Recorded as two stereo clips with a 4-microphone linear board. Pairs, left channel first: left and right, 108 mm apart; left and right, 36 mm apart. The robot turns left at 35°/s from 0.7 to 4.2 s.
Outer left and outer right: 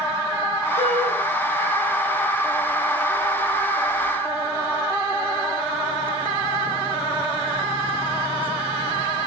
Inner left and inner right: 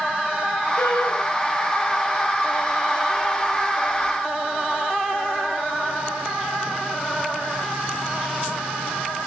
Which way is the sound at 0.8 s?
85° left.